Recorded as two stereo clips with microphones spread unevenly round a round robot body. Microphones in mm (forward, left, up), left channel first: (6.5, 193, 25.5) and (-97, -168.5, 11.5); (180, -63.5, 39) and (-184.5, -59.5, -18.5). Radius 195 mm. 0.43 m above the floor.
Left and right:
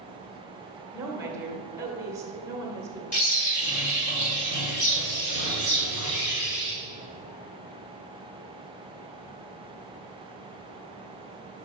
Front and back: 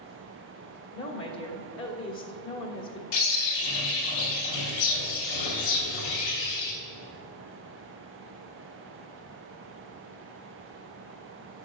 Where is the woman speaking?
35° right, 1.3 m.